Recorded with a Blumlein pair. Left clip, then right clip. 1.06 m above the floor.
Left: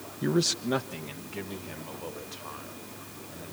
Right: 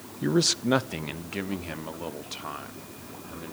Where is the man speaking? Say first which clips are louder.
Right 3 dB; 5° right, 0.6 m; by 3.5 s 45° right, 3 m.